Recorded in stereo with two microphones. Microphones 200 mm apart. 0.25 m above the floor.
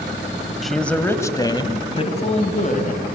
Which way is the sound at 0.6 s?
Centre (ahead or behind).